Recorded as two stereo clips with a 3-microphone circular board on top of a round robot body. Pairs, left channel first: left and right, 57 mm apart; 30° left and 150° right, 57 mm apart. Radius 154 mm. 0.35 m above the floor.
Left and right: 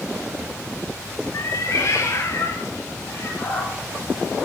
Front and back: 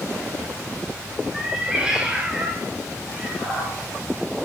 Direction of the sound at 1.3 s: 125° left.